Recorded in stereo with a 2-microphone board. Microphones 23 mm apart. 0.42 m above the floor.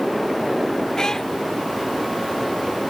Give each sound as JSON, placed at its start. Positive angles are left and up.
{"t": 1.0, "sound": "a cat meowing", "side_deg": 25}